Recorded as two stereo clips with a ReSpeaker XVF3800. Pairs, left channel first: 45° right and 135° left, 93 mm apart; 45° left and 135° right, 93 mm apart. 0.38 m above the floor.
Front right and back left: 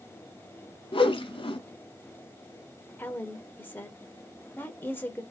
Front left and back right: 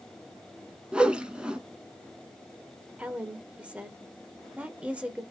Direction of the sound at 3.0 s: 75° right.